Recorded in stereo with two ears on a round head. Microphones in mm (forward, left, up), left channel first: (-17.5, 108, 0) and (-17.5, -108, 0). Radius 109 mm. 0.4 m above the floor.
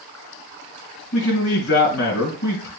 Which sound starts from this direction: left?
A man speaking, at 1.1 s.